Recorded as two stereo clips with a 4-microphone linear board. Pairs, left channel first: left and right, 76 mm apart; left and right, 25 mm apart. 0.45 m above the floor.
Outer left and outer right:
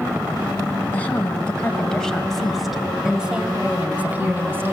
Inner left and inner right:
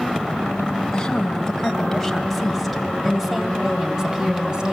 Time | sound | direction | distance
0.9 | a woman speaking | 20° left (ahead or behind) | 2.5 m